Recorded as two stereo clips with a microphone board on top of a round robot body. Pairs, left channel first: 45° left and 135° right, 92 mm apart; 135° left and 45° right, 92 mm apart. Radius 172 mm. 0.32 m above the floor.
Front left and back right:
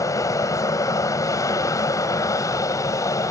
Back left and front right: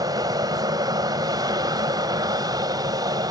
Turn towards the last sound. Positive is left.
turn(degrees=-5)